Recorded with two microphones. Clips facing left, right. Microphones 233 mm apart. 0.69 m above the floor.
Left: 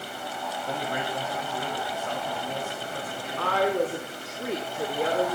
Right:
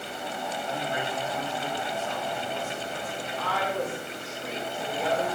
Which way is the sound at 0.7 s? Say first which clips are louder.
Left 2 dB; 60° left (ahead or behind).